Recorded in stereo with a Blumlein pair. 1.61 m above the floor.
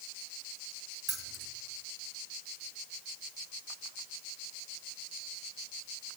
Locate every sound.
1.1 s keys jangling: 25° right, 1.6 m